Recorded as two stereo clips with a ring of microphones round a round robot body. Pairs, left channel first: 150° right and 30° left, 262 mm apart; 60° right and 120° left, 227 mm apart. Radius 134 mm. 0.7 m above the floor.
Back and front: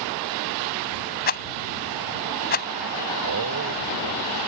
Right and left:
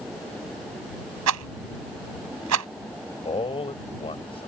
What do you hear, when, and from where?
1.3 s a rattle: 155° left
3.2 s a man speaking: 5° left